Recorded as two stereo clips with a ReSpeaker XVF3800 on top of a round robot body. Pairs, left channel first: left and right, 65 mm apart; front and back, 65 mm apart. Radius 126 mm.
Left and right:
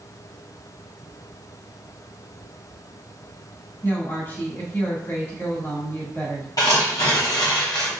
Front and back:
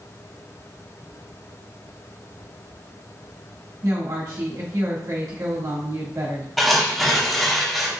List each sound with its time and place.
3.8 s a woman speaking: 145° left, 1.9 m
6.6 s tearing paper: 90° left, 1.0 m